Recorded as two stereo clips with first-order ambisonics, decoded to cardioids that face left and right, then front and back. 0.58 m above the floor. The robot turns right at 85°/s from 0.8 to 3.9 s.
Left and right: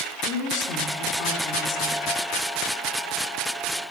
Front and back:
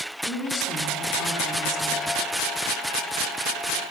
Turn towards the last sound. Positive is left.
turn(degrees=-30)